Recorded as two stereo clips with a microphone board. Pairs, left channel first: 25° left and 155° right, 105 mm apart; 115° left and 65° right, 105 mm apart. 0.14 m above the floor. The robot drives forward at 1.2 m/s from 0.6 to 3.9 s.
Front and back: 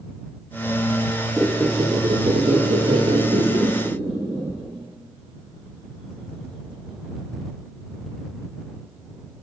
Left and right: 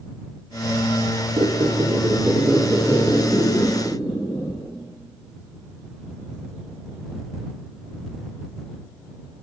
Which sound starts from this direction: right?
A squeak, at 1.4 s.